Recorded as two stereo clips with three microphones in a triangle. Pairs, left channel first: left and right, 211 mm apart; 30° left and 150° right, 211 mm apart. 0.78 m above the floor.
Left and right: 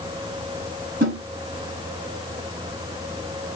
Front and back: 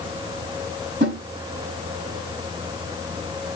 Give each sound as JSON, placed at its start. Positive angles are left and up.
{"t": 1.0, "sound": "a snare drum", "azimuth_deg": -115, "distance_m": 4.5}